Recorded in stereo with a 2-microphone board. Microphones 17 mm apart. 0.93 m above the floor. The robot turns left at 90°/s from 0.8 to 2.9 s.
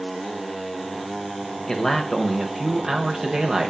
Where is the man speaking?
30° left, 0.7 m; by 3.7 s 80° right, 0.7 m.